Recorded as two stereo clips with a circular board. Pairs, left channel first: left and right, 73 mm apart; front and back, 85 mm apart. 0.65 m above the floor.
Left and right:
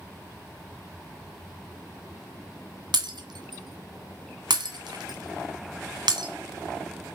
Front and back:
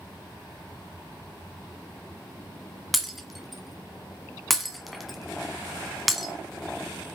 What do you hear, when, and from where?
2.9 s breaking glass: 90° right, 1.6 m